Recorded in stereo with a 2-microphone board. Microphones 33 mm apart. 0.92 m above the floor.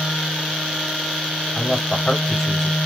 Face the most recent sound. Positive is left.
turn(degrees=10)  # may be behind; listen again after turning